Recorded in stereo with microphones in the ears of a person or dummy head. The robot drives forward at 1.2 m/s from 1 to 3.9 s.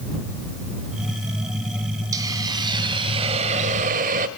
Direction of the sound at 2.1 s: 20° right (ahead or behind).